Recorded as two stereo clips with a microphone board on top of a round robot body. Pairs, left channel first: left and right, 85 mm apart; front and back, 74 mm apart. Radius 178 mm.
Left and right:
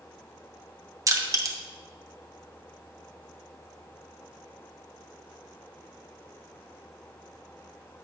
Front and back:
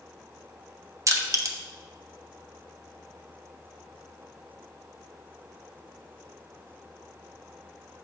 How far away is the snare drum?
I don't hear a snare drum.